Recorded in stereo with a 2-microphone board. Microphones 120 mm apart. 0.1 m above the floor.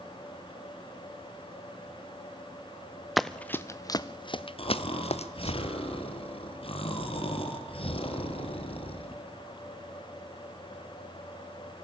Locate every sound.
3.2 s running footsteps: centre (ahead or behind), 0.7 m; by 5.6 s 65° left (ahead or behind), 1.4 m
4.6 s snoring: 50° left (ahead or behind), 2 m